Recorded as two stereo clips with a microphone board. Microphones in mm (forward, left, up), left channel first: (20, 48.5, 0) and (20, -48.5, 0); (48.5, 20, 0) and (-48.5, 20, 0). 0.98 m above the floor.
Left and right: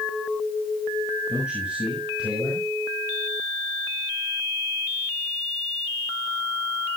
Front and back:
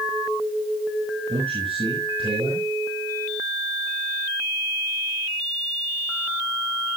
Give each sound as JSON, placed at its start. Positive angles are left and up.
{"t": 1.3, "sound": "a man speaking", "azimuth_deg": -165, "distance_m": 6.5}